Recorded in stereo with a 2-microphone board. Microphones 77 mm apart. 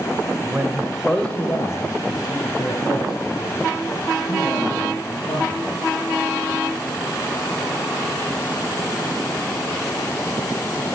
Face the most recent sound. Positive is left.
turn(degrees=75)  # may be behind; listen again after turning